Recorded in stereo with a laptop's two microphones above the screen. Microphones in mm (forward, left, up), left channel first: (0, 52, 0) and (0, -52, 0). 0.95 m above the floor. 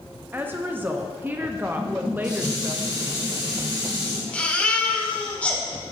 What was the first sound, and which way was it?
A woman speaking, 20° right (ahead or behind).